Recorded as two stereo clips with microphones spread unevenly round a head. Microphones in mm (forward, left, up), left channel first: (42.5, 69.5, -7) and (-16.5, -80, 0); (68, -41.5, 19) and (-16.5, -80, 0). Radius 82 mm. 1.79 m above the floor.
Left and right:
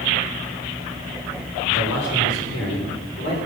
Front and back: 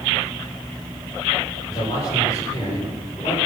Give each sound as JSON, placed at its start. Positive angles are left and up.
{"t": 1.7, "sound": "a man speaking", "azimuth_deg": 90, "distance_m": 7.5}